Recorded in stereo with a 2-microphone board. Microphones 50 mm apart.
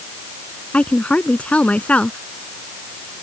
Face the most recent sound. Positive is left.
turn(degrees=25)  # may be behind; listen again after turning